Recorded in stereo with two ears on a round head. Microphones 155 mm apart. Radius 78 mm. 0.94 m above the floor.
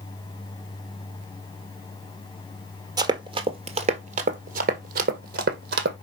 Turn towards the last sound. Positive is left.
turn(degrees=-65)  # may be behind; listen again after turning